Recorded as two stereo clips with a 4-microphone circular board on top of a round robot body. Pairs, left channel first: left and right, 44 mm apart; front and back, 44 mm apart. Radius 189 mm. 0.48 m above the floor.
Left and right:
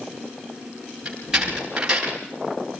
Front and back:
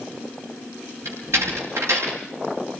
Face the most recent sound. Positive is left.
turn(degrees=-165)